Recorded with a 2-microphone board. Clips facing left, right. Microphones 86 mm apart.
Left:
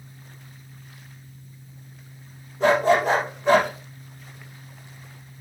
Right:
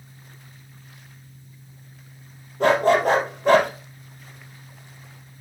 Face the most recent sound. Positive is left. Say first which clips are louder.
# right 1 dB
turn(degrees=-55)  # may be behind; listen again after turning